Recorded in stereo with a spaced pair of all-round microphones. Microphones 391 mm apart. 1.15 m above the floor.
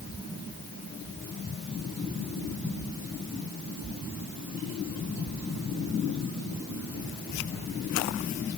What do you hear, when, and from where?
Only background noise.